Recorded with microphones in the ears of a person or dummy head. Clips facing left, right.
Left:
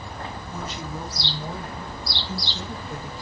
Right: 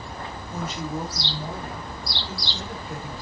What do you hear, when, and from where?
0.5 s a woman speaking: 50° right (ahead or behind), 3 m; by 3.1 s 70° right (ahead or behind), 5.5 m